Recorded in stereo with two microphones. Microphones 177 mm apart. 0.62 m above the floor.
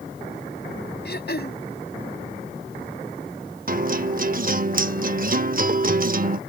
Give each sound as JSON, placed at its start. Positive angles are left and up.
{"t": 1.1, "sound": "throat clearing", "side_deg": 65}
{"t": 3.7, "sound": "a guitar", "side_deg": -50}